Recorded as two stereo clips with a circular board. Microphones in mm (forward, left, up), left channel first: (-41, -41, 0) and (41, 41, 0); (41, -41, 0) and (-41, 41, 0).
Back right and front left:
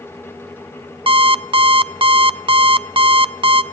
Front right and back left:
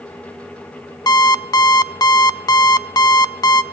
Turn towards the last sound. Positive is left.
turn(degrees=10)